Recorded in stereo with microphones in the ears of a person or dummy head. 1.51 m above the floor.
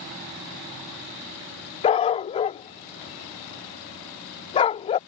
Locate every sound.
1.8 s a dog barking: 30° left (ahead or behind)